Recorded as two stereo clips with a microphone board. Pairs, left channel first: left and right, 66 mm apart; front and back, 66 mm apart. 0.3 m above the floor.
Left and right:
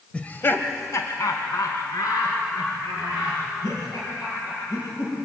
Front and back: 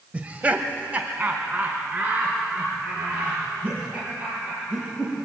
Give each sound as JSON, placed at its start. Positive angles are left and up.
{"t": 0.1, "sound": "laughter", "azimuth_deg": 140, "distance_m": 0.9}